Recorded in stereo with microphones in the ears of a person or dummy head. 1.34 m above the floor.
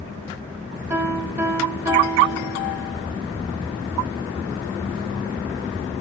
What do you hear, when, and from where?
0.9 s a piano: 10° right (ahead or behind), 3.5 m